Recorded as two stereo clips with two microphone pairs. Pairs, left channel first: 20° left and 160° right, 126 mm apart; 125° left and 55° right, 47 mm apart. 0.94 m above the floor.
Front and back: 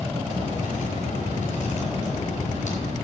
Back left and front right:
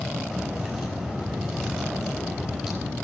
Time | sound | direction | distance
0.3 | a crack | 40° left | 6 m